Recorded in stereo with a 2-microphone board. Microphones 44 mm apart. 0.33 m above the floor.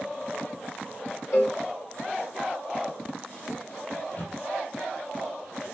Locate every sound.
1.3 s a cowbell: 70° left (ahead or behind), 3 m
4.0 s a microwave: 45° left (ahead or behind), 6.5 m